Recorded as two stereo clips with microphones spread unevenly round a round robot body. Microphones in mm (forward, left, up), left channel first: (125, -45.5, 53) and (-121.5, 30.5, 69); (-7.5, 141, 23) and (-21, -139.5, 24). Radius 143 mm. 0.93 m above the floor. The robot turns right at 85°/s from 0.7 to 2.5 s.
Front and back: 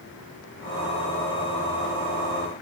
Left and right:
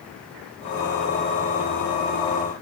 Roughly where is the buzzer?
I don't hear a buzzer.